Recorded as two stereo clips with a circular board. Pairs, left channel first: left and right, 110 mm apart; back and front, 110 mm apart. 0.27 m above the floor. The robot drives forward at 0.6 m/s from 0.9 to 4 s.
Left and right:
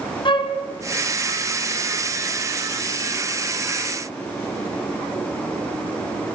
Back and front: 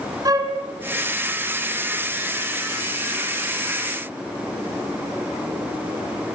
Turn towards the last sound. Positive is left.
turn(degrees=115)